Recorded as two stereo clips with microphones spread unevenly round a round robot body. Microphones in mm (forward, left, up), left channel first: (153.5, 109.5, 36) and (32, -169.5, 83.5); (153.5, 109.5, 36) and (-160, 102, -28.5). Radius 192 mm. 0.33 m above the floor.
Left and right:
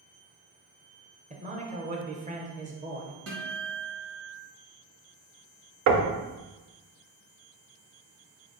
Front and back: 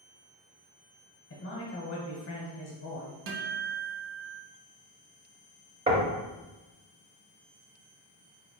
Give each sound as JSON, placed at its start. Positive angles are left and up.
{"t": 1.3, "sound": "a man speaking", "azimuth_deg": -45, "distance_m": 1.1}
{"t": 3.3, "sound": "a guitar", "azimuth_deg": -175, "distance_m": 0.8}
{"t": 5.9, "sound": "knocking", "azimuth_deg": -135, "distance_m": 0.6}